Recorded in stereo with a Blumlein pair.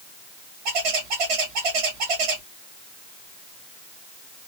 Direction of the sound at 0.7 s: 40° right.